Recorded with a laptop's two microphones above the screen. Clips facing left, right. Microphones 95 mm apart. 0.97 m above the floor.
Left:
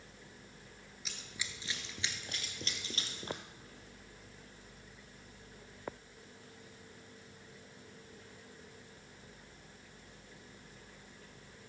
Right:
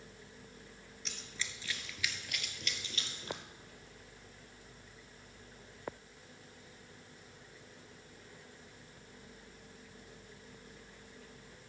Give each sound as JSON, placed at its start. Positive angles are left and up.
{"t": 1.1, "sound": "running footsteps", "side_deg": 5, "distance_m": 0.9}